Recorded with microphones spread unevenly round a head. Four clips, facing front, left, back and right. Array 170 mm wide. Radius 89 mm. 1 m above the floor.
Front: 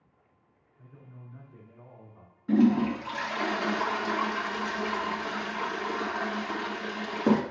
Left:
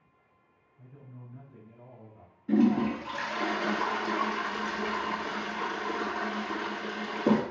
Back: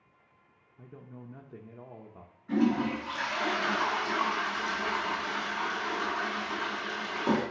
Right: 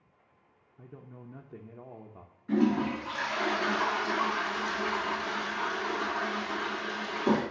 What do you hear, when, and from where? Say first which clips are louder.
0.8 s a man speaking: right 3 dB, back 5 dB; 145° right, 0.8 m
2.5 s a toilet flushing: left 2 dB, front 4 dB; 35° left, 1.8 m